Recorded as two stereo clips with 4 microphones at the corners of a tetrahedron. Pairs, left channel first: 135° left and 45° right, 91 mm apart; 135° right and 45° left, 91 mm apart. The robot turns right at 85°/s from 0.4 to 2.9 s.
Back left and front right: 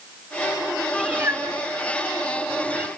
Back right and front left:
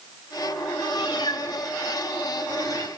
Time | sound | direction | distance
0.9 | a cat meowing | 130° right | 2.5 m